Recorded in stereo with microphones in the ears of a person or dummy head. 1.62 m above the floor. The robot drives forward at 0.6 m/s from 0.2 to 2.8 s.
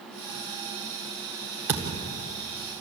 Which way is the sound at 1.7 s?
20° right (ahead or behind).